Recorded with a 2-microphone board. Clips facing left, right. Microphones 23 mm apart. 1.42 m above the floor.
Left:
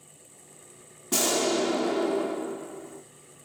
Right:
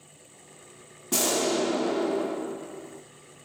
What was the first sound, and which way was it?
An explosion, 5° left (ahead or behind).